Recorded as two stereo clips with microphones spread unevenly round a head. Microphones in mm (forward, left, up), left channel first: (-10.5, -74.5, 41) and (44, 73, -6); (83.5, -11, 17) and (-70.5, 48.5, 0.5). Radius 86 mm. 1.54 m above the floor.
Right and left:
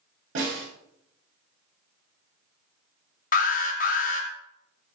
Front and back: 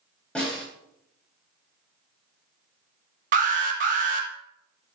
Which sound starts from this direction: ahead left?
A snare drum, at 0.3 s.